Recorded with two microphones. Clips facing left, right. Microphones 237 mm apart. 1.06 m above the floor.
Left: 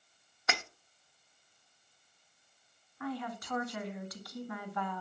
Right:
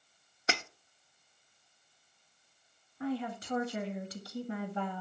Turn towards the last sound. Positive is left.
turn(degrees=-30)  # may be behind; listen again after turning